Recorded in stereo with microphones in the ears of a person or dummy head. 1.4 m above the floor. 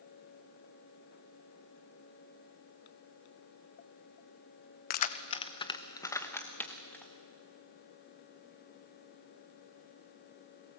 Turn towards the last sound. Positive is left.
turn(degrees=5)  # may be behind; listen again after turning